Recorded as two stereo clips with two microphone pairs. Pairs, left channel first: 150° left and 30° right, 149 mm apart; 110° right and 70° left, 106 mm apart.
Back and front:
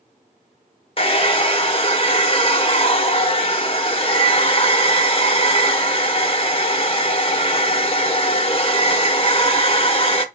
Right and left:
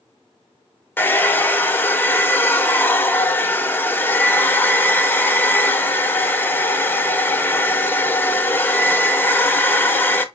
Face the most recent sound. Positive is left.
turn(degrees=180)